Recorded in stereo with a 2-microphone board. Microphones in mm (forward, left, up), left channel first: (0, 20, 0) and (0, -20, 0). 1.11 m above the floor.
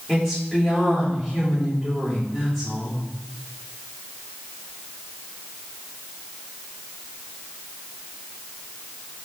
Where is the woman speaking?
15° left (ahead or behind), 4 m.